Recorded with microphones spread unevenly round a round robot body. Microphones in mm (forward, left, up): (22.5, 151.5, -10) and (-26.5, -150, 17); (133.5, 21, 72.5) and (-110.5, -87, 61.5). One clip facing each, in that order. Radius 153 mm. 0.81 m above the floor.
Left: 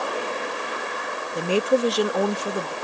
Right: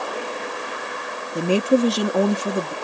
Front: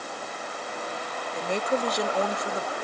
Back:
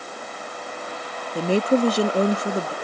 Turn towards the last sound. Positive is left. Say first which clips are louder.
# right 3 dB, back 9 dB
turn(degrees=-100)